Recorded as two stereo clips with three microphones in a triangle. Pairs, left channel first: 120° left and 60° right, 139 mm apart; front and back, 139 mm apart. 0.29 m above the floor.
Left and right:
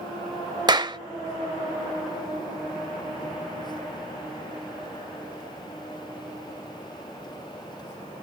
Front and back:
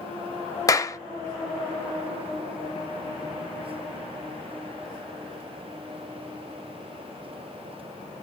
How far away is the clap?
About 0.7 m.